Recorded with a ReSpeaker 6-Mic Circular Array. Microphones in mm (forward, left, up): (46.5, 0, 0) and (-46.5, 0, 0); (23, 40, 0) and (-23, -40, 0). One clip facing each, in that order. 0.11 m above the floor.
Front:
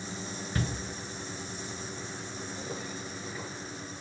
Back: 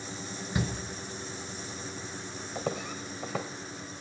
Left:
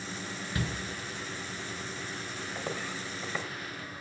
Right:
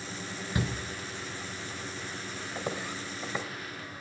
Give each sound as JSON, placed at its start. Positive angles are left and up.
{"t": 0.6, "sound": "a shout", "azimuth_deg": -130, "distance_m": 1.1}
{"t": 2.5, "sound": "footsteps", "azimuth_deg": 160, "distance_m": 1.1}